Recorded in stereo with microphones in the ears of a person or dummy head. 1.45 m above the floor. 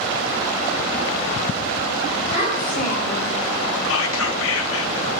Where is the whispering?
75° left (ahead or behind), 1.1 m.